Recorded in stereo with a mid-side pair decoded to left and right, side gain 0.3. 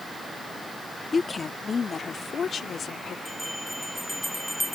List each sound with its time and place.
1.1 s a woman speaking: 45° left; by 3.1 s 75° left
3.2 s a bell: straight ahead